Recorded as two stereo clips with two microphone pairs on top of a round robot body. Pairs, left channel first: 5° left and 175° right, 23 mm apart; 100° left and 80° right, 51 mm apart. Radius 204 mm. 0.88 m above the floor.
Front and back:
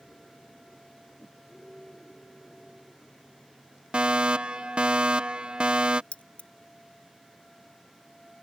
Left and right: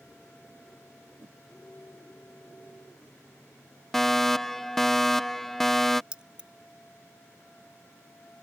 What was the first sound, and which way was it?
A whoosh, 45° right.